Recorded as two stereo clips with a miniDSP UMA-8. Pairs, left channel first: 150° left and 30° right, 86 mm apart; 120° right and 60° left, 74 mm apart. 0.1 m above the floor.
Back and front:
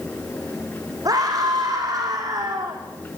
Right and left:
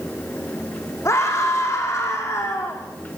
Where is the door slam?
No door slam in this recording.